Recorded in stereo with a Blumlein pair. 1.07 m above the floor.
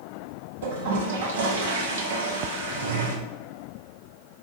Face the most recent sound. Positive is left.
turn(degrees=-60)